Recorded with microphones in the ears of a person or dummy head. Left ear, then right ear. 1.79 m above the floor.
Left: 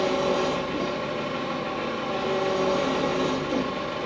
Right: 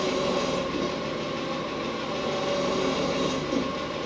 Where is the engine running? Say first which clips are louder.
Left 2 dB; 20° left (ahead or behind), 1.3 m.